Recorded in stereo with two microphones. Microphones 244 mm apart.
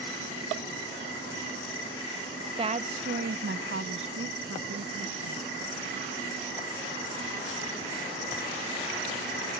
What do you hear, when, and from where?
2.6 s a woman speaking: 25° right (ahead or behind); by 5.7 s 75° right (ahead or behind)